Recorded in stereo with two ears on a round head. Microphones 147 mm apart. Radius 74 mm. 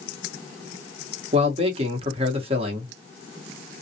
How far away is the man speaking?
About 0.9 m.